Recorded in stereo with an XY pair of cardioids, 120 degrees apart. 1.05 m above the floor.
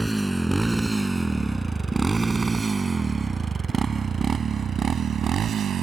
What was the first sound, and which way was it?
A motorcycle, 5° right.